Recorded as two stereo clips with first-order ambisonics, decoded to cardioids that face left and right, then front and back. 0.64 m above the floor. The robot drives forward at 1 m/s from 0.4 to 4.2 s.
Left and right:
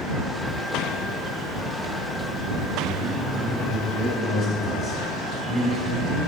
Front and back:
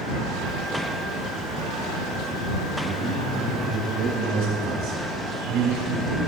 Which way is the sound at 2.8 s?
175° right.